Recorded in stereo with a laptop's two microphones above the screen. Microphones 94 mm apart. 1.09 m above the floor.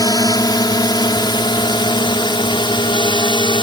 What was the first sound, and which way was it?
A drone, 45° left (ahead or behind).